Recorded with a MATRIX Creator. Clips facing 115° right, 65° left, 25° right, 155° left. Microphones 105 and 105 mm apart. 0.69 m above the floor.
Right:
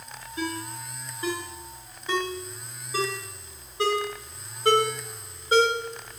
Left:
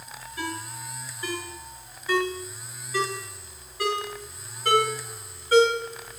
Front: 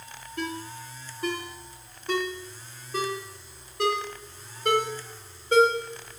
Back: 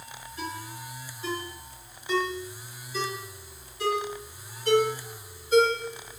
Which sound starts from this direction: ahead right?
A ringtone, at 0.4 s.